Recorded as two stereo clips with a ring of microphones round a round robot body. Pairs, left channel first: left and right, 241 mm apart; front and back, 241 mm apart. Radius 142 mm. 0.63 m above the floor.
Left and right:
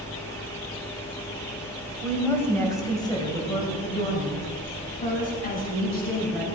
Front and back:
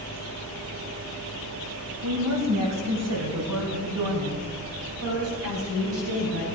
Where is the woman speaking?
175° left, 3.5 m; by 6.5 s 140° left, 5.5 m.